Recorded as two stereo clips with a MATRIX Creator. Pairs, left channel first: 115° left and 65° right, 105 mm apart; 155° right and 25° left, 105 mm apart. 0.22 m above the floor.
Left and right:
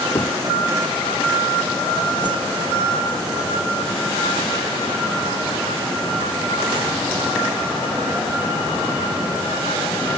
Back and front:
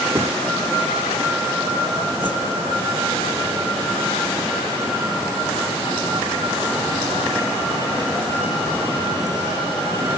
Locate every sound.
0.1 s knocking: 75° left
2.2 s a whoosh: 110° right